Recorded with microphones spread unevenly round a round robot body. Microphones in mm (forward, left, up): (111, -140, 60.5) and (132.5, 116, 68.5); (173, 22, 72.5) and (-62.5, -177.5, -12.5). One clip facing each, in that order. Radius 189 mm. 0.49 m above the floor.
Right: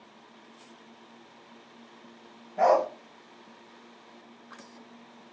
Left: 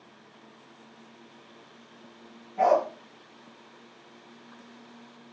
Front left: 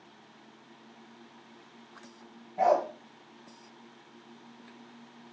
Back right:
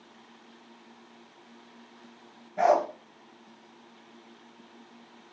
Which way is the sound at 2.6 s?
170° right.